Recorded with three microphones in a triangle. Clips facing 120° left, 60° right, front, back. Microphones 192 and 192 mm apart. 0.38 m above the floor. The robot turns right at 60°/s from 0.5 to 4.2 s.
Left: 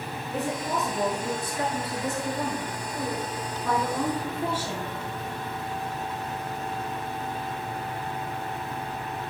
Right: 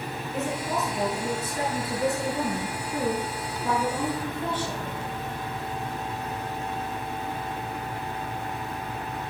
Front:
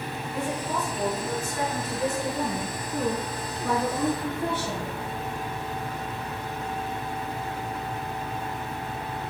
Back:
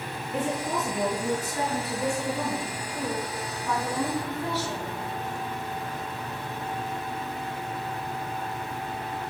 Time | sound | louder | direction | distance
0.3 | a woman speaking | even, back 2 dB | 175° left | 7 m